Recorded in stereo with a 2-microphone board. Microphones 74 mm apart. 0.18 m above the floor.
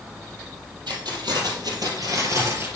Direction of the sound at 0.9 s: 75° right (ahead or behind).